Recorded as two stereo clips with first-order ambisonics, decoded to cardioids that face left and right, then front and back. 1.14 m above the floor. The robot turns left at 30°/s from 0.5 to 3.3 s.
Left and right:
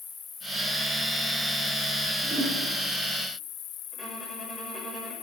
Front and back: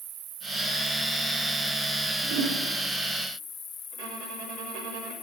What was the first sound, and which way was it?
An insect, 150° left.